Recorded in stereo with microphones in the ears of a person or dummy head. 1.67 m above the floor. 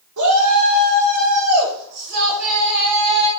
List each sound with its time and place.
0.2 s a shout: 75° right (ahead or behind), 3 m; by 3.3 s 35° right (ahead or behind), 2.5 m